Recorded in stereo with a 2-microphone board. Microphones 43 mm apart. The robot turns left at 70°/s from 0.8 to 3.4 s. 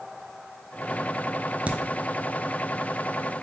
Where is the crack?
35° right (ahead or behind), 0.5 m; by 1.8 s 40° right (ahead or behind), 0.5 m.